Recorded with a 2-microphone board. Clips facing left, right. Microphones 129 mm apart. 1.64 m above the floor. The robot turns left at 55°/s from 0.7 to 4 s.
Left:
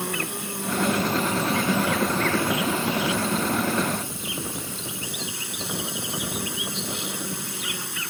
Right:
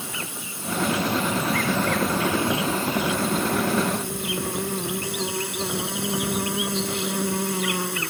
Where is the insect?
70° left; by 8.1 s 110° right.